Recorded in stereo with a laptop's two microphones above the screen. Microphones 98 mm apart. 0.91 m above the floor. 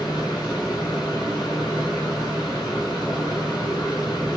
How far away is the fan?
About 1.2 m.